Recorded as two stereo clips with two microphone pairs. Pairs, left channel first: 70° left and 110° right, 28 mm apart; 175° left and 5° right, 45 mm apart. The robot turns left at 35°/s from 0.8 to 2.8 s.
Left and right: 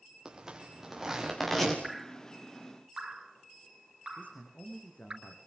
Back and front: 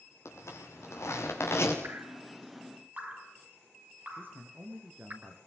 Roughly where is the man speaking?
Ahead left.